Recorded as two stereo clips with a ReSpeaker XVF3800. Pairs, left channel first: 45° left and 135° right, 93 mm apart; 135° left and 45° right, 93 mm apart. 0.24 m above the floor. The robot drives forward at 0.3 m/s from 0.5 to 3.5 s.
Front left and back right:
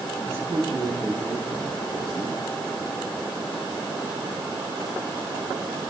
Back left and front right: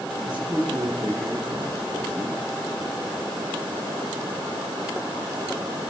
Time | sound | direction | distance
0.2 | a man speaking | 75° right | 3.5 m